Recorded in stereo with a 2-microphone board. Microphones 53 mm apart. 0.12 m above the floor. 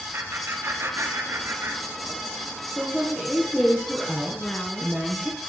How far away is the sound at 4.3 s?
About 1.2 m.